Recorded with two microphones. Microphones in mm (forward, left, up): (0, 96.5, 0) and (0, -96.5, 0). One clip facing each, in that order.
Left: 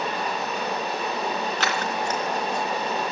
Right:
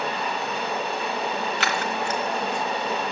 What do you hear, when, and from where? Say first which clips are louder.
0.0 s running water: even; 40° left (ahead or behind), 5.5 m
1.6 s scissors: even; 40° left (ahead or behind), 1.4 m